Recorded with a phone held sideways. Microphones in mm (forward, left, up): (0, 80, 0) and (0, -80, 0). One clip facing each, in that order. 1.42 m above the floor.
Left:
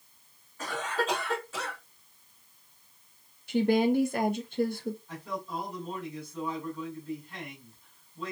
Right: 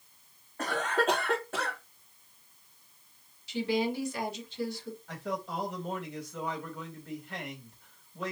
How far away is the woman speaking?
About 1.2 m.